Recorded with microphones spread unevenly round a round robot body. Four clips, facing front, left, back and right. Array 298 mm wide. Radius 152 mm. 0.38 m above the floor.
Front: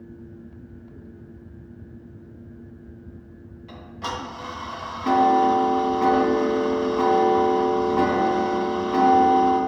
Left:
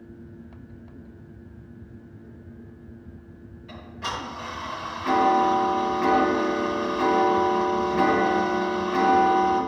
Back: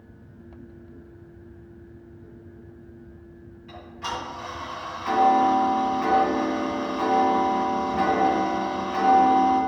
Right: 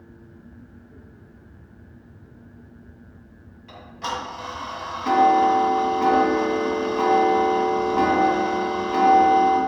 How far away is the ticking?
About 2.5 m.